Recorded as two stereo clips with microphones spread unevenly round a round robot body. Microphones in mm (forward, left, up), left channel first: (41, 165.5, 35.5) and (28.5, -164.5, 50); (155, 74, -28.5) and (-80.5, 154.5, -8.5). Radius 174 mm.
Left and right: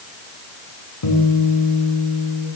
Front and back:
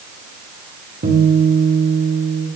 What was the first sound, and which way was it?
A guitar, 110° left.